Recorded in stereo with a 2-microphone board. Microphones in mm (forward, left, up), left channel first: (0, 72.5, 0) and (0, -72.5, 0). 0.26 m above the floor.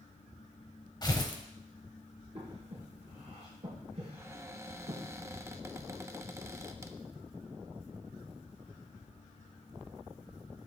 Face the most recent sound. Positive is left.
turn(degrees=-20)  # may be behind; listen again after turning